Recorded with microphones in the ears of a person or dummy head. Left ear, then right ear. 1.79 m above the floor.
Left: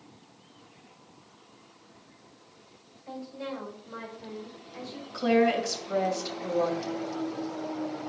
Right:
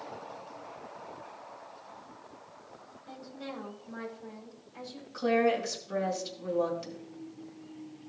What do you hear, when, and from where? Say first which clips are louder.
3.1 s a woman speaking: left 6 dB; 80° left, 4.5 m; by 5.0 s 55° left (ahead or behind), 5.5 m
5.1 s a woman speaking: left 3 dB; 20° left (ahead or behind), 2 m